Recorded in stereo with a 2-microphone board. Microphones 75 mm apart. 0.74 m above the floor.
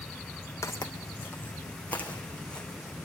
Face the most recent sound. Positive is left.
turn(degrees=10)  # may be behind; listen again after turning